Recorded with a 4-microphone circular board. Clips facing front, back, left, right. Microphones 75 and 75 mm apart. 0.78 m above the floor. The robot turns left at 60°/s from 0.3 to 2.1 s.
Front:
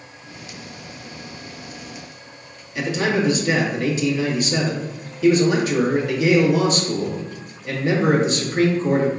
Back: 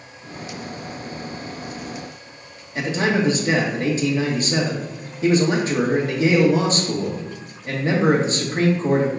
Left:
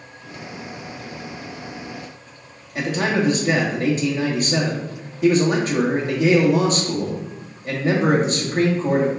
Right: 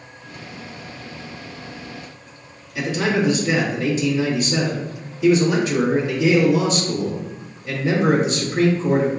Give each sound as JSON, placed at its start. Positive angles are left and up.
{"t": 2.8, "sound": "a man speaking", "azimuth_deg": 130, "distance_m": 1.4}